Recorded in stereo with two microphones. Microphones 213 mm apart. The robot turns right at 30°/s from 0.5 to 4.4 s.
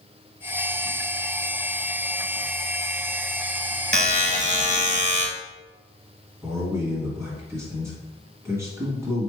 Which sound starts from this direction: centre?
A man speaking, at 6.4 s.